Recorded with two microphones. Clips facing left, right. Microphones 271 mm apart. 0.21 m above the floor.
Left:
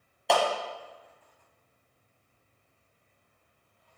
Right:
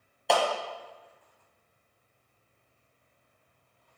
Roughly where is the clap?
Centre.